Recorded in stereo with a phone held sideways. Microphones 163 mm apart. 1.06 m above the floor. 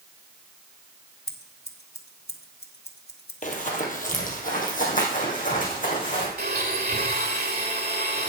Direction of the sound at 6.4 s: 75° right (ahead or behind).